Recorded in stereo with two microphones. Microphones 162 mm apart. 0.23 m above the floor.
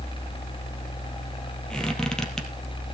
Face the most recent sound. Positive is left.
turn(degrees=5)  # may be behind; listen again after turning